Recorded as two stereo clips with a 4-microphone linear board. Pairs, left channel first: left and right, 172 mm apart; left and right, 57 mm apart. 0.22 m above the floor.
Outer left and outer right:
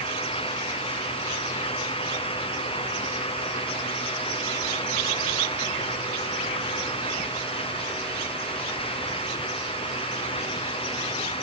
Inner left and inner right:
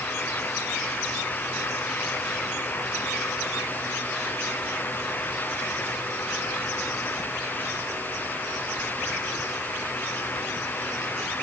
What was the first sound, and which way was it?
Only background noise.